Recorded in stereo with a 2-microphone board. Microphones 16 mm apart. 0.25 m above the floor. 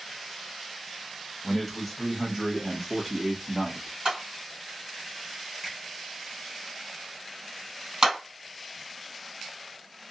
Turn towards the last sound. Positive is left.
turn(degrees=-45)  # may be behind; listen again after turning